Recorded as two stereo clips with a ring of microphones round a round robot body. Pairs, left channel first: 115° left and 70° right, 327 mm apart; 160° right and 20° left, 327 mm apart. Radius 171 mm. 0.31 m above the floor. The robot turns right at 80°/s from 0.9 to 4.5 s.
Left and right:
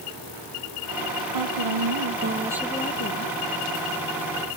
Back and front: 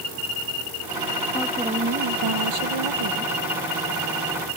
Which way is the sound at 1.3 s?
80° right.